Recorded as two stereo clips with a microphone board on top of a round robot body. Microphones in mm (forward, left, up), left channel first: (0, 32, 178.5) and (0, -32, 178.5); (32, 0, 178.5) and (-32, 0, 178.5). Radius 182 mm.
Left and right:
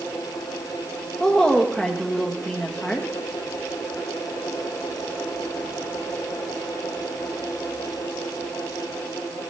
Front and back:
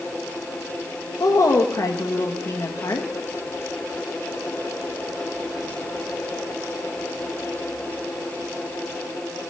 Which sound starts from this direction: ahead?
A woman speaking, at 1.2 s.